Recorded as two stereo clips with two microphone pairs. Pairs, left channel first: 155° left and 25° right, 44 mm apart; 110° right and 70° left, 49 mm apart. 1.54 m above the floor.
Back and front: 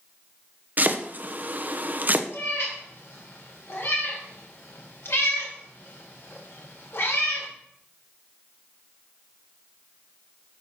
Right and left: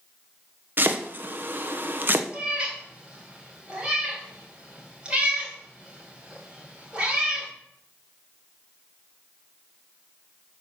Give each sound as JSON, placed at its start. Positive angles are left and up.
{"t": 0.8, "sound": "chopping", "azimuth_deg": 25, "distance_m": 1.0}
{"t": 2.3, "sound": "a cat meowing", "azimuth_deg": 140, "distance_m": 3.5}